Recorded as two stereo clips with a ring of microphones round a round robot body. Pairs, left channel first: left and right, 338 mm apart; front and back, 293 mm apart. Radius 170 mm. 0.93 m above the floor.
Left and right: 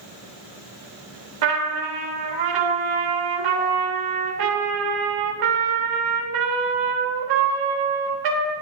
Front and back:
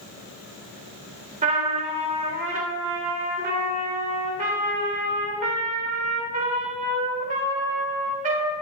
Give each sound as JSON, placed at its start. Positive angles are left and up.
{"t": 1.4, "sound": "a trumpet", "azimuth_deg": -110, "distance_m": 1.6}